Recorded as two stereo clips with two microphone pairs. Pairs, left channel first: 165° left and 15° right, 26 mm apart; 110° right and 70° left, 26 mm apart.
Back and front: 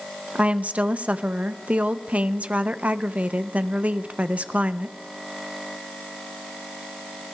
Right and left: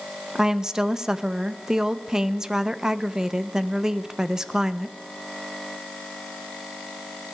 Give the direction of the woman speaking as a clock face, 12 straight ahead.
12 o'clock.